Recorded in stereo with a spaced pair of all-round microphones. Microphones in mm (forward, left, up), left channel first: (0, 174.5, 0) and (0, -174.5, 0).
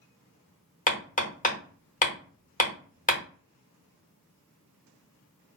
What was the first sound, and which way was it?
Hammering, 25° left (ahead or behind).